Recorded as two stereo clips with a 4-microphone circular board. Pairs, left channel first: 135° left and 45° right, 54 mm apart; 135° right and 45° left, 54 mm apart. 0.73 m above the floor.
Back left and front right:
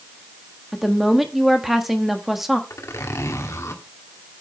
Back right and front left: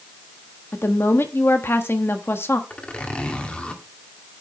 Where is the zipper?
160° left, 2 m.